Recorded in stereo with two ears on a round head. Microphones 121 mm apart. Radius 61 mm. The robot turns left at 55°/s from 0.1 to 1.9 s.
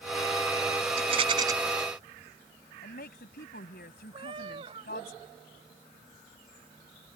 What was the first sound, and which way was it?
A rattle, 125° right.